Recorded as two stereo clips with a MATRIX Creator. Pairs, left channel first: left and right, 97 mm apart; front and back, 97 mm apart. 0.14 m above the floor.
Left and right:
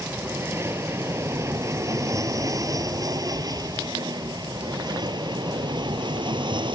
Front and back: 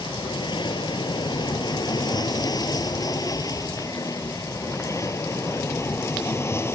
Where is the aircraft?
30° right; by 6.8 s 65° right.